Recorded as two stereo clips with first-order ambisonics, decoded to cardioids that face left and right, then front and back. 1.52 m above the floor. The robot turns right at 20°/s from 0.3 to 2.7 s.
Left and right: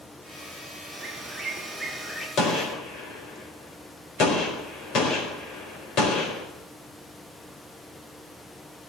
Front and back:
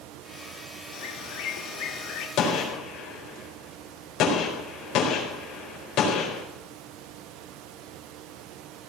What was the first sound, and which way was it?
A bird, 15° right.